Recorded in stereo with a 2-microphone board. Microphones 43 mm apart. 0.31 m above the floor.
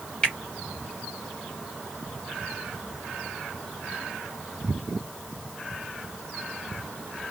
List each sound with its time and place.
0.2 s a finger snap: 20° left (ahead or behind), 1.1 m